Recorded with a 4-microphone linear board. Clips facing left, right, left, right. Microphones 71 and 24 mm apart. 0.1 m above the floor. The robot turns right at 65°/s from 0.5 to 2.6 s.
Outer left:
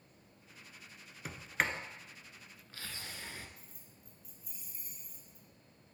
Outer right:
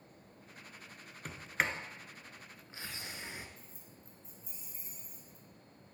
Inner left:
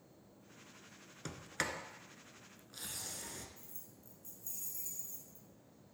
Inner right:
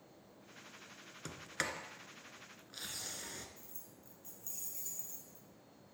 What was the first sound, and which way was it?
A sliding door, 5° left (ahead or behind).